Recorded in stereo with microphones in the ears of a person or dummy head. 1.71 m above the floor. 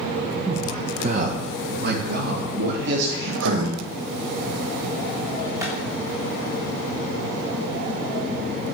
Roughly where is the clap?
Centre.